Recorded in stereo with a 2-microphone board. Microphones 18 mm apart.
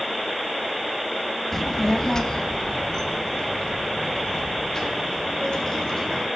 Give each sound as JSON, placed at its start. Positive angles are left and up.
{"t": 1.5, "sound": "a child speaking", "side_deg": 15, "distance_m": 0.7}